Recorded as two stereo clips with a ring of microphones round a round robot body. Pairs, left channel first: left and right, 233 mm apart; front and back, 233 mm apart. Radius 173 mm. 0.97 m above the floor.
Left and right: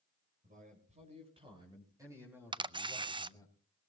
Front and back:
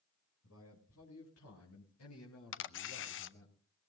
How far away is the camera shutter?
About 0.7 m.